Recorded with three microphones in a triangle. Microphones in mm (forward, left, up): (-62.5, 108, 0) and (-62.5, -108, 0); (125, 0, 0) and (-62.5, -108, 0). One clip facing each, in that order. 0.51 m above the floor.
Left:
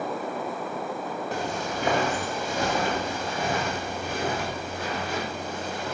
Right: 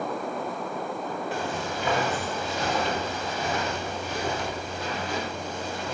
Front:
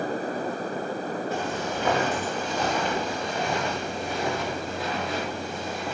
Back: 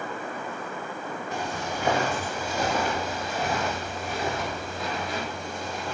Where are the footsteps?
135° left, 9 m; by 6.0 s 115° left, 13 m.